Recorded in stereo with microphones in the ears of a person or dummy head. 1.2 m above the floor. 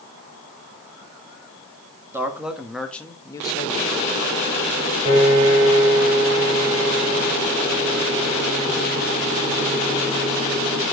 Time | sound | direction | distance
2.1 | a man speaking | 15° right (ahead or behind) | 1.9 m
5.0 | a piano | 40° right (ahead or behind) | 5 m